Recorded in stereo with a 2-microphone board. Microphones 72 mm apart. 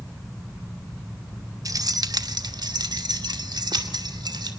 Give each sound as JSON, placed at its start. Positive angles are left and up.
{"t": 1.6, "sound": "keys jangling", "side_deg": -55, "distance_m": 0.9}